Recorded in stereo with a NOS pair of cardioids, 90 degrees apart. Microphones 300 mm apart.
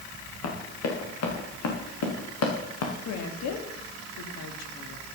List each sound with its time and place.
0.4 s running footsteps: 65° left, 6 m; by 2.9 s 70° left, 4.5 m
3.0 s a woman speaking: 70° left, 3 m